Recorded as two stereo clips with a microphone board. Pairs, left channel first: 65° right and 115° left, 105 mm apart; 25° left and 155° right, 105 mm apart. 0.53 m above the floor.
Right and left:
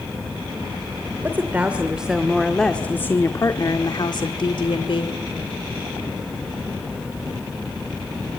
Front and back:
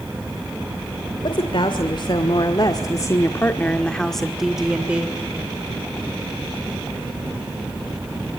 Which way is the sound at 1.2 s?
45° left.